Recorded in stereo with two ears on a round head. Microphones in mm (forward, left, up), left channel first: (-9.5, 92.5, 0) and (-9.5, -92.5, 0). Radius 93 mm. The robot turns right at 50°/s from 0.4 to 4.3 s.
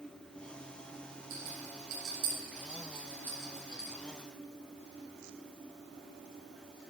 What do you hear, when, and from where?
1.3 s a rattle: 70° right (ahead or behind), 7 m; by 4.0 s 25° left (ahead or behind), 7 m